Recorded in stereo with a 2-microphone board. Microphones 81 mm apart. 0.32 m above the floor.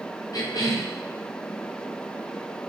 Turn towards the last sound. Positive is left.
turn(degrees=50)  # may be behind; listen again after turning